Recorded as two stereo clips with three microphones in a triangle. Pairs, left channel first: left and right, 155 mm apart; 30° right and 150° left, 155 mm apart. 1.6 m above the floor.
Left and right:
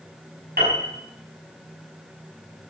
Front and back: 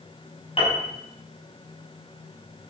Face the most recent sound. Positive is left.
turn(degrees=-85)